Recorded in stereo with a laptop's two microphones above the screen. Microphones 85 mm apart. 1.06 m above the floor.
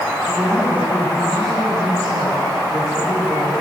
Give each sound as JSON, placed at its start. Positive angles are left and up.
{"t": 0.3, "sound": "a woman speaking", "side_deg": 5, "distance_m": 5.0}